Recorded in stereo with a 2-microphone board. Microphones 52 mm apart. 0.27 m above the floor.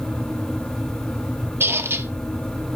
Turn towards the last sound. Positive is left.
turn(degrees=-50)  # may be behind; listen again after turning